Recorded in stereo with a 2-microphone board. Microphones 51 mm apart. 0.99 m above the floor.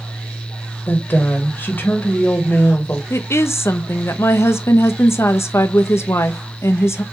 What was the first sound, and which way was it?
A woman speaking, 45° left (ahead or behind).